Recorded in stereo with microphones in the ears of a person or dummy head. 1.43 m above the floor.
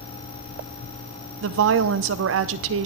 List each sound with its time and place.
1.4 s a woman speaking: 75° right (ahead or behind), 0.6 m